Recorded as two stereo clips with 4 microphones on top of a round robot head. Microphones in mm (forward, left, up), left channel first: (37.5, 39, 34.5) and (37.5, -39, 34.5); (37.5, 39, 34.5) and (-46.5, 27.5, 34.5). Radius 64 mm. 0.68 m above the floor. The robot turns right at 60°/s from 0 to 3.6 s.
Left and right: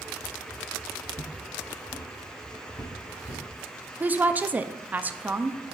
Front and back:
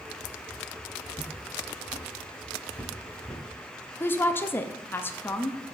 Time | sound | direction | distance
1.1 | footsteps | 40° right | 1.5 m
4.0 | a woman speaking | 35° right | 0.5 m